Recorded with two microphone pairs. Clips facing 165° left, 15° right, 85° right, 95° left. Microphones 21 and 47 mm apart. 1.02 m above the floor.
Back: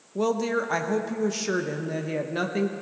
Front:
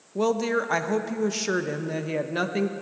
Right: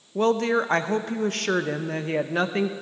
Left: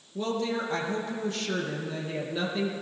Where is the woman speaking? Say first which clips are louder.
Front 1 dB, right 8 dB; 90° right, 0.8 m.